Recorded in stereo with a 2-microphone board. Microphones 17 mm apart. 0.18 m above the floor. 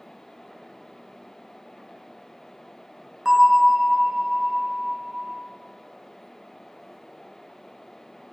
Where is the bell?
25° right (ahead or behind), 0.5 m.